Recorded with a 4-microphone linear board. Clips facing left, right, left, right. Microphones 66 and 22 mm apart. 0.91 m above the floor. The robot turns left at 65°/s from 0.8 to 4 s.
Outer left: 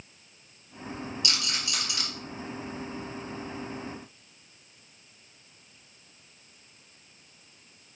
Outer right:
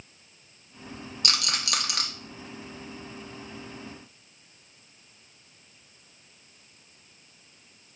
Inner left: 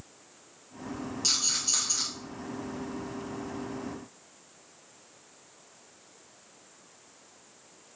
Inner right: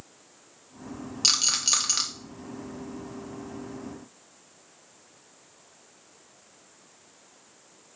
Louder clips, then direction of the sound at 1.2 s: Outer right 6 dB, inner right 5 dB; 50° right (ahead or behind).